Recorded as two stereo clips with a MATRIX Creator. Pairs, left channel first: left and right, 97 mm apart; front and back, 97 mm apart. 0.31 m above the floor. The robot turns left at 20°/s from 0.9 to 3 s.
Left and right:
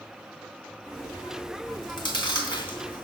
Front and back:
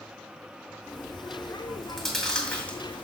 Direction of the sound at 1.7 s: 95° left.